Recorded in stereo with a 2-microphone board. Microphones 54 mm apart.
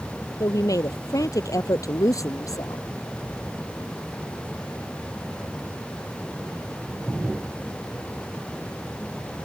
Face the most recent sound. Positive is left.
turn(degrees=75)  # may be behind; listen again after turning